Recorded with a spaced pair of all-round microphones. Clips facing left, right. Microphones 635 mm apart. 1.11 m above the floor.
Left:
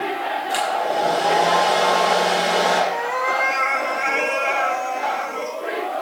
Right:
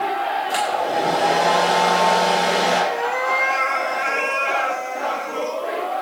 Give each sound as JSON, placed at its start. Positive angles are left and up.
{"t": 0.5, "sound": "a hair dryer", "side_deg": -75, "distance_m": 5.5}
{"t": 2.9, "sound": "a cat meowing", "side_deg": 30, "distance_m": 1.4}